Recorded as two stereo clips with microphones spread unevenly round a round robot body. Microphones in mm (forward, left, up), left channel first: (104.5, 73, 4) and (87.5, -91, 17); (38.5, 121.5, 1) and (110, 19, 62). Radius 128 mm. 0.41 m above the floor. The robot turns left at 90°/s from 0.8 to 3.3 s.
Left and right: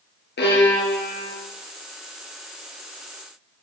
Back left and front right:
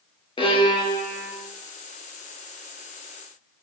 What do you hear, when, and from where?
0.4 s a violin: 75° left, 4.5 m; by 1.3 s 25° left, 4.5 m